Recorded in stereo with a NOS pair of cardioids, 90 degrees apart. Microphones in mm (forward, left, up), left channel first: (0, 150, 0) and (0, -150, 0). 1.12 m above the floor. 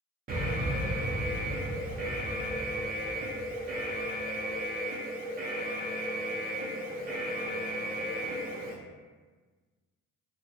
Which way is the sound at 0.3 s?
30° right.